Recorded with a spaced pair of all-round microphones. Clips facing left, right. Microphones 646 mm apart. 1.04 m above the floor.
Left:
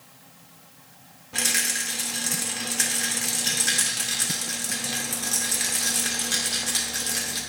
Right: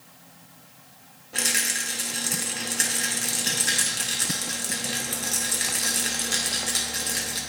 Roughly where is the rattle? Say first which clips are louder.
Even; left.